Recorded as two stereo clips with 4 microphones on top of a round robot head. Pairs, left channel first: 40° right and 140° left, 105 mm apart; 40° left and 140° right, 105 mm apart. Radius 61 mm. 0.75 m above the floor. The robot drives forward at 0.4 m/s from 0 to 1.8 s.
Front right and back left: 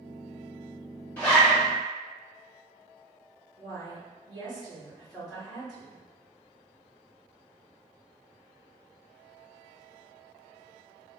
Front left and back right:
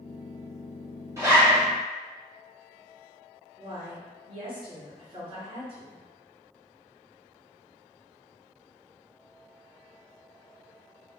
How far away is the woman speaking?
About 1.7 m.